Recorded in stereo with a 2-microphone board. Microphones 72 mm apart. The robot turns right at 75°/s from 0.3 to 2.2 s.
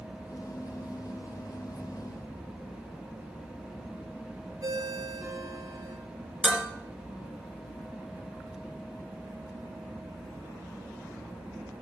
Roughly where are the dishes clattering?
Centre.